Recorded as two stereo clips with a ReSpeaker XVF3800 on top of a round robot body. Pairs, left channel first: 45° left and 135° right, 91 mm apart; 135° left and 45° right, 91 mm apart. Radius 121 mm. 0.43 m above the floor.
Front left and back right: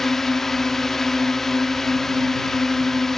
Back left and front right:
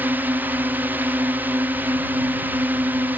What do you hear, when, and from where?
0.0 s a drone: 35° right